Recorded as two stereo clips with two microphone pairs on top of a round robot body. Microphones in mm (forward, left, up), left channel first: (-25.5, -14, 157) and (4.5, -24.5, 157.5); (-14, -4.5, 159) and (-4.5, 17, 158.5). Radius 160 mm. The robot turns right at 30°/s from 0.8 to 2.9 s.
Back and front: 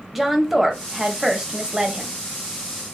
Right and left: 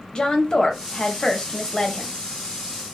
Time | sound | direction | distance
0.1 | a woman speaking | 100° right | 1.0 m